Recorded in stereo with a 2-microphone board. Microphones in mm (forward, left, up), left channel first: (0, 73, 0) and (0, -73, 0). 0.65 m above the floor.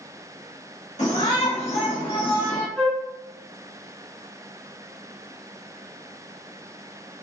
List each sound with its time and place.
1.0 s a shout: 50° left (ahead or behind), 1.6 m; by 2.7 s 25° left (ahead or behind), 1.3 m
2.8 s a flute: 5° left (ahead or behind), 1.3 m